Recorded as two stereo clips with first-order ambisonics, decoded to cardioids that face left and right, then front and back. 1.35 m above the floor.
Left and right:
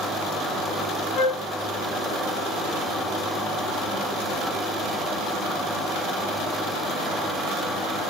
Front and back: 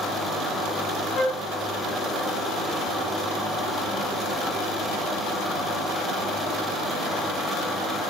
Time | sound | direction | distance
1.1 | a flute | 55° left | 0.7 m